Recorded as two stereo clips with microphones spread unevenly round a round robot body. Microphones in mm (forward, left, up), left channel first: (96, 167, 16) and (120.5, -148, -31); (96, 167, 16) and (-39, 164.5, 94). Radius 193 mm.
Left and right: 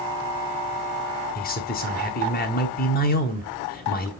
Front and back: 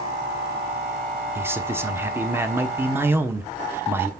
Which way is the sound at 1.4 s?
50° left.